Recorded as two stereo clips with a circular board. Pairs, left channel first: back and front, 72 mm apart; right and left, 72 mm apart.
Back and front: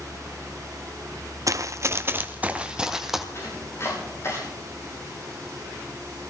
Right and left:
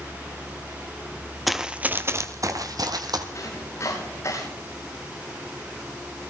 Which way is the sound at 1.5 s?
Straight ahead.